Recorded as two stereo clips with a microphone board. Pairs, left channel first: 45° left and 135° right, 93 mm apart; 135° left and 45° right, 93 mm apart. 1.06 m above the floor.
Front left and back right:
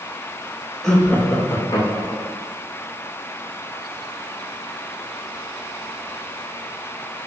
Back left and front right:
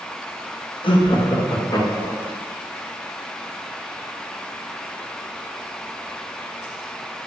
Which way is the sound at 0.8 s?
130° left.